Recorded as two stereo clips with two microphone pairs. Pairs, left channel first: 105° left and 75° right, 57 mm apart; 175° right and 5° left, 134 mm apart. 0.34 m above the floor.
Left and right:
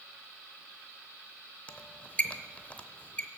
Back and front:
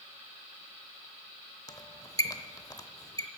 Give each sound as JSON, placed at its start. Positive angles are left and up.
{"t": 1.7, "sound": "a squeak", "azimuth_deg": 150, "distance_m": 0.7}